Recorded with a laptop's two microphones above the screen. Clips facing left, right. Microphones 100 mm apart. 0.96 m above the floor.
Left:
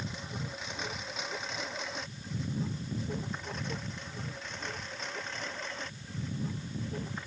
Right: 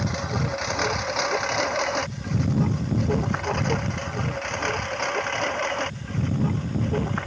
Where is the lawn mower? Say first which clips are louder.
Right 13 dB; 70° right (ahead or behind).